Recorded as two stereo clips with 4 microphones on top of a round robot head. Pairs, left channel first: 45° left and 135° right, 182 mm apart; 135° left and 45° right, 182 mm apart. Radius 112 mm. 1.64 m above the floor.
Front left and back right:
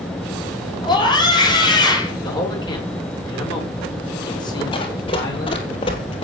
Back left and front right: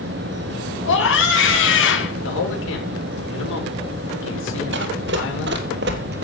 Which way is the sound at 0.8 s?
115° left.